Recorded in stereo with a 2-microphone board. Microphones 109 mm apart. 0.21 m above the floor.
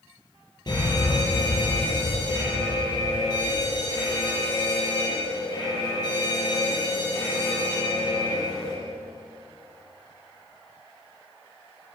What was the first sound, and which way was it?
A fire alarm, 40° left (ahead or behind).